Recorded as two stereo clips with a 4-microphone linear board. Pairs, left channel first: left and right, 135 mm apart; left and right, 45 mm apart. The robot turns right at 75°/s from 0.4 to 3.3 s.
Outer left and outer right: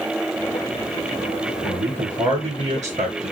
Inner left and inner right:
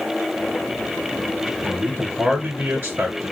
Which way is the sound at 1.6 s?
175° left.